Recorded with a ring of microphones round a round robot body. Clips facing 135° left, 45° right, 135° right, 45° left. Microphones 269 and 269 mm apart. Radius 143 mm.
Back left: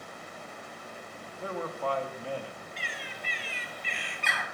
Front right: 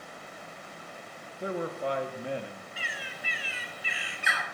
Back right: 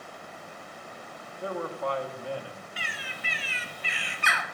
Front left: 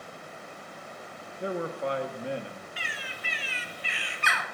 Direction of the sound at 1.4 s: 5° left.